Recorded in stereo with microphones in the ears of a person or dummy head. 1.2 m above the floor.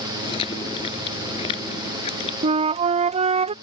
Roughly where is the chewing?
Centre.